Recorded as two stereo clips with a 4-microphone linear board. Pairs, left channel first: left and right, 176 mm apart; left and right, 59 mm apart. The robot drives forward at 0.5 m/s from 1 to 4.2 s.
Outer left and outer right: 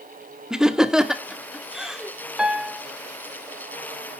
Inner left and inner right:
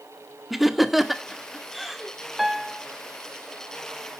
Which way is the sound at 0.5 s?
5° right (ahead or behind).